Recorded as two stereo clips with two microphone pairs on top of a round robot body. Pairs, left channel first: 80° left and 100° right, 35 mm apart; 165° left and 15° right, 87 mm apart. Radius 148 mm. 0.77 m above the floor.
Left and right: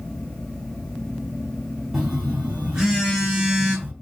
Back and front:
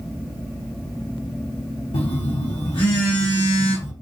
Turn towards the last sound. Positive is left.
turn(degrees=-175)